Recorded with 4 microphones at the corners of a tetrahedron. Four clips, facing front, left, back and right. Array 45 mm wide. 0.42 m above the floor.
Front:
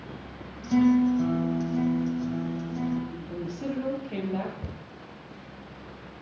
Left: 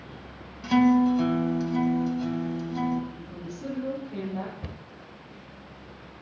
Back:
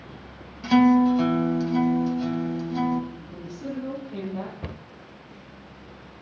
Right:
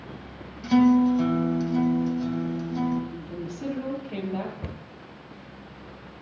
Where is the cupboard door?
165° right, 0.7 m.